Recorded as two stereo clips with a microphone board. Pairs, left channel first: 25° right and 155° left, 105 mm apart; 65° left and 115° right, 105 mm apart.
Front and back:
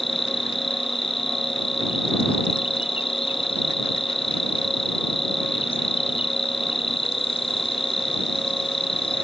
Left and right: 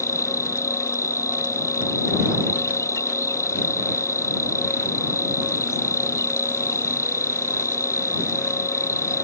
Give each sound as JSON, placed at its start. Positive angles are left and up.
{"t": 0.0, "sound": "an insect", "azimuth_deg": 5}